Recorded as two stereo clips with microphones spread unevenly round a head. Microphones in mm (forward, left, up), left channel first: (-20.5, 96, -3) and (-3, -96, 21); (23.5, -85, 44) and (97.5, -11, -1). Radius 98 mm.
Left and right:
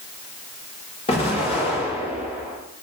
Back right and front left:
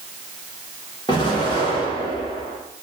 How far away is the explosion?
About 1.5 m.